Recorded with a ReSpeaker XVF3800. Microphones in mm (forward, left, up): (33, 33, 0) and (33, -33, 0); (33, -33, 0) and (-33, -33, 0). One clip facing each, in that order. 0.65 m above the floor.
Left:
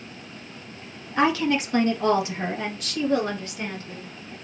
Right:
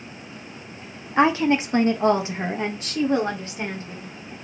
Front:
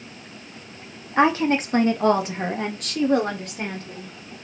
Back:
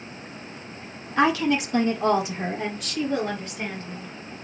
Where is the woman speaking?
45° right, 0.8 m; by 4.4 s 25° right, 2.5 m.